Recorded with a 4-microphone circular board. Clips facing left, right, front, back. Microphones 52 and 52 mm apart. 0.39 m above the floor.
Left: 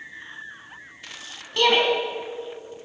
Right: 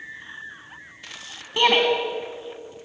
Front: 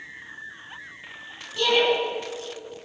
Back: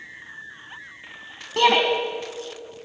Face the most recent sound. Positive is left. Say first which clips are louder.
# right 1 dB, back 4 dB
turn(degrees=-160)